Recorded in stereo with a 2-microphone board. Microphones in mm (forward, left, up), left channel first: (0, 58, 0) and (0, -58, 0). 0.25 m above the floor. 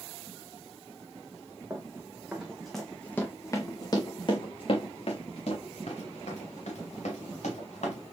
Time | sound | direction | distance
1.7 | running footsteps | 20° right (ahead or behind) | 1.3 m